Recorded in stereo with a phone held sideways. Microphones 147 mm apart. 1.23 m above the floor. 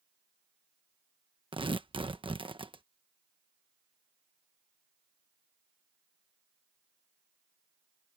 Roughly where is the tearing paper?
Right.